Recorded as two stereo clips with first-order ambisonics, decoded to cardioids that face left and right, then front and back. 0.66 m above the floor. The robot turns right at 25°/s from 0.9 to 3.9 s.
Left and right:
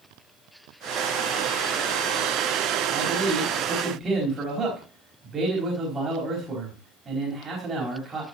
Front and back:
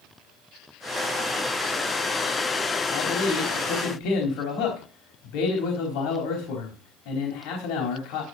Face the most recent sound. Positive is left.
turn(degrees=-20)